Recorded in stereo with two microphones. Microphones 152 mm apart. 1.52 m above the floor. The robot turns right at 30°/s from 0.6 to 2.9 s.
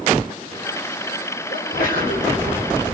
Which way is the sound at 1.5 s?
85° left.